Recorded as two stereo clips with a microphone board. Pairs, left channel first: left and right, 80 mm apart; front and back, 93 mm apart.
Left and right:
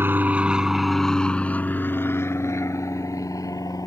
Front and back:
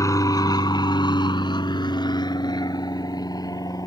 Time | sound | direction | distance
0.0 | an aircraft | 40° right | ?